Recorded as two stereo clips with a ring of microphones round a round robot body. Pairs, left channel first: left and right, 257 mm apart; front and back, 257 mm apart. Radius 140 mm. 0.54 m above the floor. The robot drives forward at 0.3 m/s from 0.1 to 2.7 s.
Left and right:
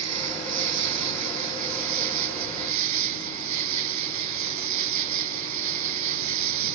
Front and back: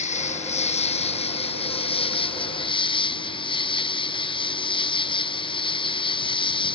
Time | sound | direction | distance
0.0 | an insect | 65° right | ?